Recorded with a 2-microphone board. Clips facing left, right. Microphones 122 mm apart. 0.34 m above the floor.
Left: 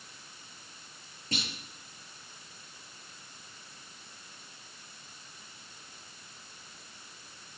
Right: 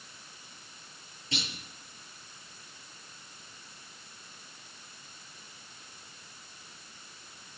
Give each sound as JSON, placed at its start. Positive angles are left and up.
{"t": 1.3, "sound": "a clunk", "side_deg": 45, "distance_m": 6.0}